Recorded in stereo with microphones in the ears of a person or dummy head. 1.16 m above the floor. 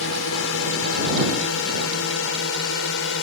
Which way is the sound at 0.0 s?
70° left (ahead or behind).